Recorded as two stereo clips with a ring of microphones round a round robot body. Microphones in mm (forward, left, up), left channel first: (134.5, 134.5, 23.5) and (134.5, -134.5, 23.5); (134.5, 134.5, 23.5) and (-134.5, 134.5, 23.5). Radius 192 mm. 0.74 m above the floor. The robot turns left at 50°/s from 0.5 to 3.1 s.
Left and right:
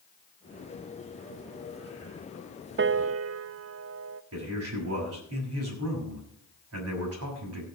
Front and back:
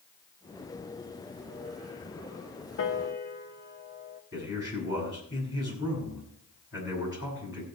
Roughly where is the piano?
Ahead right.